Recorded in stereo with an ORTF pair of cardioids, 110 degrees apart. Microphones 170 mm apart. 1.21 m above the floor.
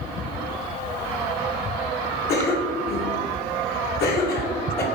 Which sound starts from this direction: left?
A cough, at 2.3 s.